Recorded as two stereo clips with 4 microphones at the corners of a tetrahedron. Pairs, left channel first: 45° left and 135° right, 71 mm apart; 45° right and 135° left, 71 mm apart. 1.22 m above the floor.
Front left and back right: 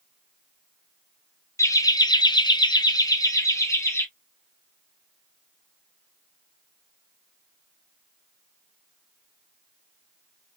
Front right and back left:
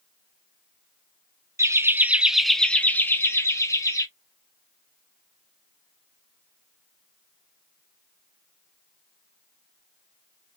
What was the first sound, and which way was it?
Laughter, 90° left.